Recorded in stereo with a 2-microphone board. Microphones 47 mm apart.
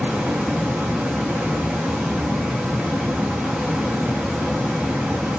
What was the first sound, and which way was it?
Running water, 20° right (ahead or behind).